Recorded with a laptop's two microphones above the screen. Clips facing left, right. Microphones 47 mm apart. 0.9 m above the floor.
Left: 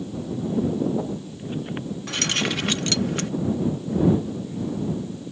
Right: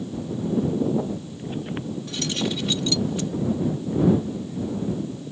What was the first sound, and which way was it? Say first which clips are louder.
Keys jangling: left 3 dB; 65° left (ahead or behind).